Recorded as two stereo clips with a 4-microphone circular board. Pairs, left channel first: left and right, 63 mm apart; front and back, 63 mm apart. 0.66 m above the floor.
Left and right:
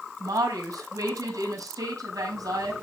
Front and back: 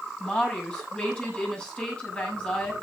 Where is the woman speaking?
75° right, 5.5 m.